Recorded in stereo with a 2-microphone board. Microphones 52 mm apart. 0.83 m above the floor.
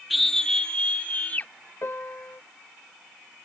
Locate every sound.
0.1 s a scream: centre (ahead or behind); by 1.5 s 45° left (ahead or behind)
1.8 s a piano: 60° left (ahead or behind)